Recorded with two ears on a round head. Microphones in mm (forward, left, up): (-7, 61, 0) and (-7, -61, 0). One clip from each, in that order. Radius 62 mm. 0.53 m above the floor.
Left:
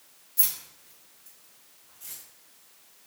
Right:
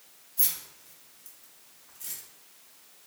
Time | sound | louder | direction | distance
0.4 | keys jangling | even | 20° left (ahead or behind) | 0.6 m